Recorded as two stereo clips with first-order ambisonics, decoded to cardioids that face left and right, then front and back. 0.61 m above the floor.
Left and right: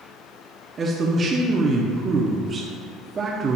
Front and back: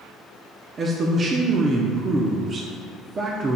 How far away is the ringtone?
I don't hear a ringtone.